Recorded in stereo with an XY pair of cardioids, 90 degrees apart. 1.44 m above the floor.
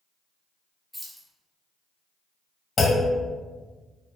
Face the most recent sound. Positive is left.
turn(degrees=40)